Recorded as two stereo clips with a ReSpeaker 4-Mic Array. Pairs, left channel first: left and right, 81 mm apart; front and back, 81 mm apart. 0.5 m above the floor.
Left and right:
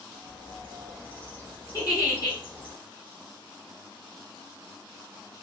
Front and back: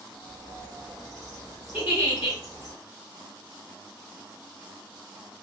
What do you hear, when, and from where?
0.1 s a bird: 155° left, 1.4 m
1.7 s a giggle: 120° left, 1.9 m